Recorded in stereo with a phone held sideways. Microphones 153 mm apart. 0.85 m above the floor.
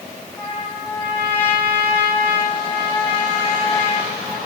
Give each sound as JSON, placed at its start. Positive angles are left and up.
{"t": 0.4, "sound": "a trumpet", "side_deg": 10, "distance_m": 7.5}